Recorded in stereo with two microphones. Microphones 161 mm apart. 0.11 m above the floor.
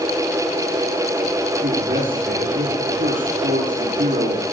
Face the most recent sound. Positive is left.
turn(degrees=-70)  # may be behind; listen again after turning